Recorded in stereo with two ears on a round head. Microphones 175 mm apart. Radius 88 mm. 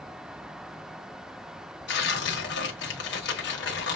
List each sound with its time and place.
1.9 s tearing paper: 60° left (ahead or behind), 1.4 m